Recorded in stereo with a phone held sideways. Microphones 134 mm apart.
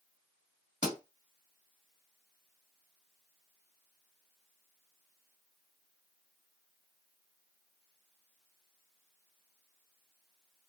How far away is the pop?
About 2.0 m.